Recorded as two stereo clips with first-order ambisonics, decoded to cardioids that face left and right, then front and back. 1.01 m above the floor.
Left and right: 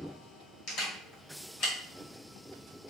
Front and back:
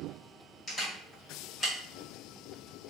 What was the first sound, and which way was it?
A camera shutter, 65° left.